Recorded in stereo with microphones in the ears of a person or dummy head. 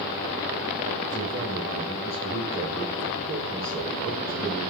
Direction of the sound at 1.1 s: 10° left (ahead or behind).